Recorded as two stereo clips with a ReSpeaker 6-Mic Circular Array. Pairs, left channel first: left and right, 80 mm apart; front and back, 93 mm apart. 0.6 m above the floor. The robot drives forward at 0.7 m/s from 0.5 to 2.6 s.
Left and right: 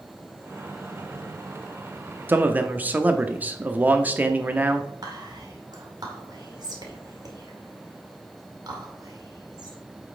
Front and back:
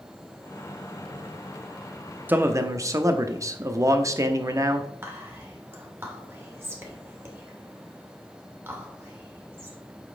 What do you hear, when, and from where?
2.3 s a man speaking: 130° right, 0.6 m; by 4.9 s 150° right, 0.7 m
5.0 s whispering: 120° right, 2 m